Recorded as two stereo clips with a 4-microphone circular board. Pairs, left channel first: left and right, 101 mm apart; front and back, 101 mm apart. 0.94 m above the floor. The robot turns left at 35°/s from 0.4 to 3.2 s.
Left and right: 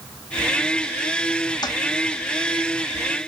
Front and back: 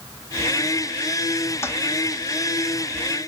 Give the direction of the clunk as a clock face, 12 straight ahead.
I don't hear a clunk.